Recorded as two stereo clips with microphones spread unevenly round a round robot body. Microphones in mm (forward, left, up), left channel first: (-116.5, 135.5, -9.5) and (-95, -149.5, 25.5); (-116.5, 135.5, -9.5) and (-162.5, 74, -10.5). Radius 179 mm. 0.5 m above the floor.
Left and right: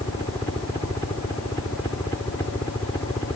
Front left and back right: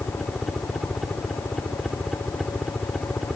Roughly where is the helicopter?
Behind left.